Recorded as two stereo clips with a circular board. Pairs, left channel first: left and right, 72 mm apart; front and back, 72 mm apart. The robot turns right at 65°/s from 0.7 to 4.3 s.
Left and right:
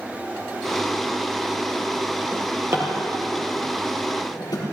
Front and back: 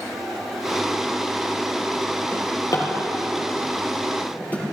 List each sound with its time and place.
2.3 s a drawer: 60° right, 4 m; by 4.7 s 65° left, 4 m